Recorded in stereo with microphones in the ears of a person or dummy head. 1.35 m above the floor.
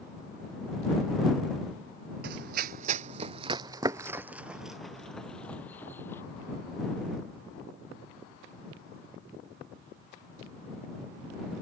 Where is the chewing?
No chewing in this recording.